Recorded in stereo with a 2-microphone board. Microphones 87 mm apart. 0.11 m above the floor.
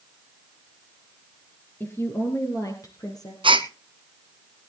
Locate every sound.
1.8 s a woman speaking: 25° left (ahead or behind), 2 m; by 3.3 s 45° left (ahead or behind), 3 m
3.4 s a gasp: 80° right, 0.9 m